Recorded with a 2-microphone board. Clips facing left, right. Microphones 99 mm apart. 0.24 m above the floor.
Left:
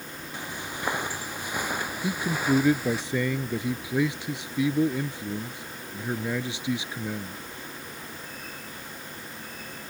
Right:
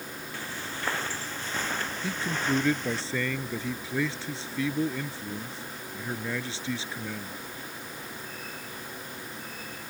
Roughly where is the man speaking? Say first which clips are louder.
Left 4 dB; centre.